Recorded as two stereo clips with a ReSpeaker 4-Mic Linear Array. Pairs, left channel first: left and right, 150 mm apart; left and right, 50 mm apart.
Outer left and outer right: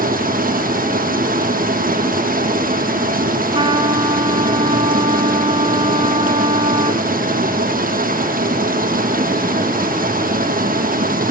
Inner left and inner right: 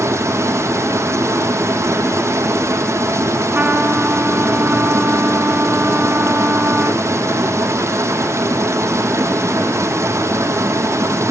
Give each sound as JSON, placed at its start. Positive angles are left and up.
{"t": 0.0, "sound": "running water", "side_deg": -65, "distance_m": 5.0}
{"t": 3.5, "sound": "a trumpet", "side_deg": -35, "distance_m": 2.5}